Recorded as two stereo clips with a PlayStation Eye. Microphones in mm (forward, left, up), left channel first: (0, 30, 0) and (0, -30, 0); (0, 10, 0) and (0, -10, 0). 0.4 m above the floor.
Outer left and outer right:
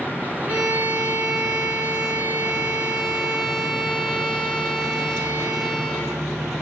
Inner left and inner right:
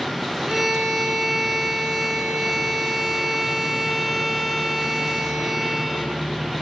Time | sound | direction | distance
0.5 | a violin | 30° right (ahead or behind) | 5 m